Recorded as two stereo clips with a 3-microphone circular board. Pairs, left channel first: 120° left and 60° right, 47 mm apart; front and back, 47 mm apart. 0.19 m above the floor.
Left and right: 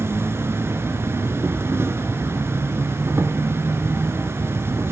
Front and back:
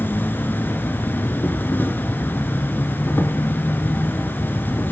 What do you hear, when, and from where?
0.0 s an insect: 40° right, 1.2 m